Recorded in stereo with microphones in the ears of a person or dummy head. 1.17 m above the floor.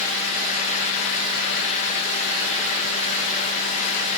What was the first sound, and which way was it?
Only background noise.